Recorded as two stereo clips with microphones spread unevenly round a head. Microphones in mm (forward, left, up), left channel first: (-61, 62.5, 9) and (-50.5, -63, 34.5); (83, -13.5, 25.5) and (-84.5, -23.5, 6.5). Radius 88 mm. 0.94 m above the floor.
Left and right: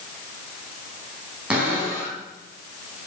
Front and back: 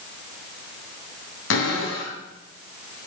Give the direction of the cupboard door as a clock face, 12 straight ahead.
12 o'clock.